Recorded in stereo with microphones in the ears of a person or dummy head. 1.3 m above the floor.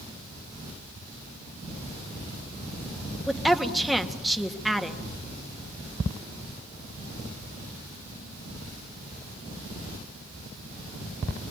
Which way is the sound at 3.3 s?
Centre (ahead or behind).